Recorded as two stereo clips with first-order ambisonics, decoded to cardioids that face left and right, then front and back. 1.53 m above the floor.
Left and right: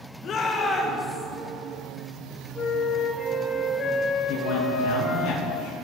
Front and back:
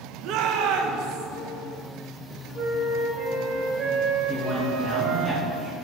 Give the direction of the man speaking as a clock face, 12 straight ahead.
9 o'clock.